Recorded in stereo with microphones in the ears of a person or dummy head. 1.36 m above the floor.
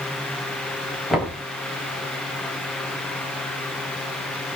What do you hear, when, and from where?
1.1 s knocking: centre (ahead or behind), 5 m